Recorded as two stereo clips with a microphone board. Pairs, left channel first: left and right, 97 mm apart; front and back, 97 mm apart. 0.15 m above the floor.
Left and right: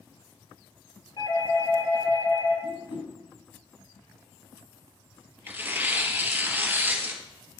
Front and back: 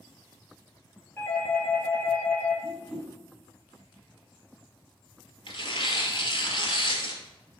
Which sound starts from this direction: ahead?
Tearing paper, at 5.5 s.